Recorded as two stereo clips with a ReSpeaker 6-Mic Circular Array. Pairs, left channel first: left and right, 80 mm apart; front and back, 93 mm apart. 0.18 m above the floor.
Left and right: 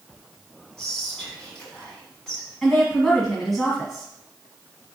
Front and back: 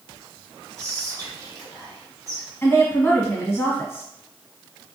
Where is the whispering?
170° left, 2.0 m.